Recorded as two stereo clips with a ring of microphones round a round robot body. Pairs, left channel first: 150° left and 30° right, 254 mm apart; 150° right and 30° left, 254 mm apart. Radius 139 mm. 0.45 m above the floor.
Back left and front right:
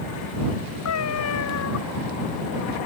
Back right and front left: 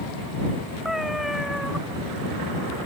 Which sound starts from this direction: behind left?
A cat meowing, at 0.8 s.